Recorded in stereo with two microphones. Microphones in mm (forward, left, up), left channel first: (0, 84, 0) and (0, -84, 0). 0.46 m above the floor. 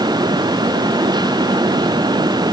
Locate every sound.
Only background noise.